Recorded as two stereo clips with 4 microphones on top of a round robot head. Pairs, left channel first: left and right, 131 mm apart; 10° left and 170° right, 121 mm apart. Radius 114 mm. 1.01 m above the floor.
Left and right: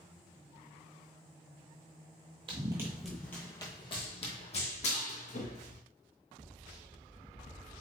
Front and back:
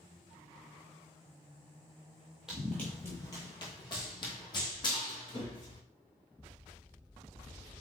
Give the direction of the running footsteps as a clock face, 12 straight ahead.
3 o'clock.